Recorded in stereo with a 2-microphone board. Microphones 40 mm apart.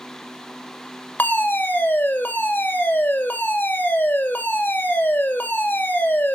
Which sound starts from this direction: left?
A fire alarm, at 1.2 s.